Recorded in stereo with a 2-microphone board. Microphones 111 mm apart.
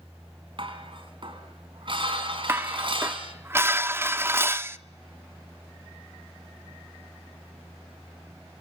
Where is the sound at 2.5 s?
20° right (ahead or behind), 0.8 m.